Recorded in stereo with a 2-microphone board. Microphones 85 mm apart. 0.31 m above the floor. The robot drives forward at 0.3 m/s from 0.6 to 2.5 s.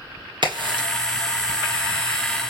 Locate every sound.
0.4 s a crack: 60° right (ahead or behind), 2 m